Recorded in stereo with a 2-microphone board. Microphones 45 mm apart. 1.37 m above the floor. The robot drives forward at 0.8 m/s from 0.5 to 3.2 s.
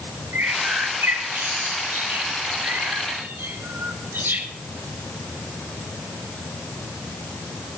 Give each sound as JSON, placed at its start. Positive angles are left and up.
{"t": 0.3, "sound": "a bird", "side_deg": -65, "distance_m": 7.5}